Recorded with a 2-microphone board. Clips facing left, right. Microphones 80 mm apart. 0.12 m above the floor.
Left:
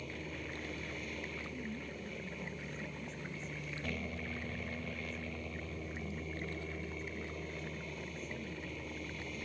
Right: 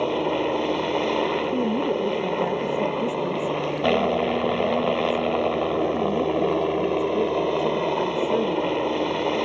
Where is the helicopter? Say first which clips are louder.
Right 22 dB; 65° right (ahead or behind).